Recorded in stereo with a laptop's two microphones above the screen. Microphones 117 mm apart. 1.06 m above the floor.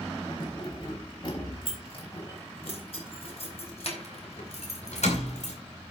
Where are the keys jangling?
45° left (ahead or behind), 4.5 m; by 5.6 s 75° left (ahead or behind), 2.5 m.